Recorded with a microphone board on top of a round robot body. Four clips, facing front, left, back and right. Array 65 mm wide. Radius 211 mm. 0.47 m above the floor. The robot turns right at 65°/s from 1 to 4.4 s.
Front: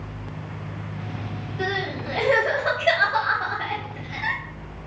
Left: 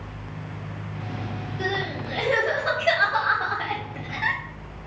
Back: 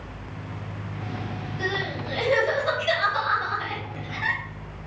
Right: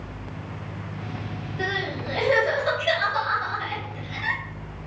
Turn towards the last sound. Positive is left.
turn(degrees=115)